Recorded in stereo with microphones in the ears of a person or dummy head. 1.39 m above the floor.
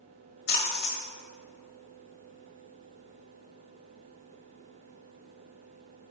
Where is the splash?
65° left (ahead or behind), 1.8 m.